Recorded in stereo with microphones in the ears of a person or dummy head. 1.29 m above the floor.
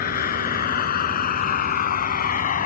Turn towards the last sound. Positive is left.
turn(degrees=40)  # may be behind; listen again after turning